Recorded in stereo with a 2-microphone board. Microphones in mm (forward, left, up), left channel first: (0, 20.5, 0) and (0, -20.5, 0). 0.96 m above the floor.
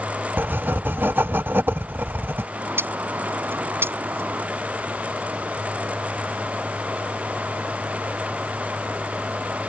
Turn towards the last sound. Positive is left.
turn(degrees=-65)  # may be behind; listen again after turning